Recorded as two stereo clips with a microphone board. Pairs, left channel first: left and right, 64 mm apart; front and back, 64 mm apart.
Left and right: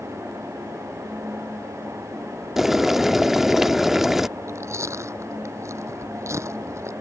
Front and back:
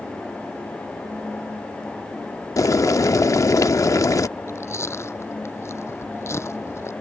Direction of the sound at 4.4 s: 45° right.